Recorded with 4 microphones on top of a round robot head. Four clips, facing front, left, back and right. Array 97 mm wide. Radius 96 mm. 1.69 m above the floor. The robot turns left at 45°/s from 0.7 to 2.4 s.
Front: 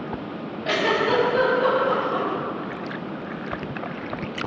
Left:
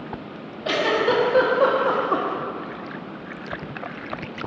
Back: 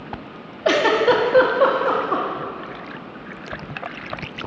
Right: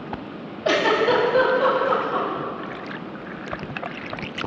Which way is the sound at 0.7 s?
165° right.